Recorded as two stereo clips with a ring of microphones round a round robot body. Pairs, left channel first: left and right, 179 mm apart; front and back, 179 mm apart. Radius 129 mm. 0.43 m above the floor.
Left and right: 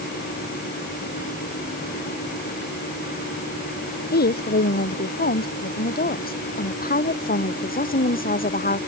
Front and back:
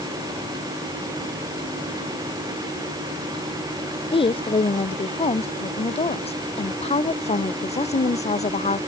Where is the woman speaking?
60° left; by 8.8 s 50° left.